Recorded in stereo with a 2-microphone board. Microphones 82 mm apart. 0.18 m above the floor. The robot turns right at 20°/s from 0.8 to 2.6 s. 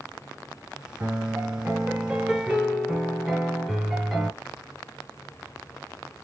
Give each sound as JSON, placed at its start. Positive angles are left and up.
{"t": 1.0, "sound": "a piano", "azimuth_deg": -35, "distance_m": 1.1}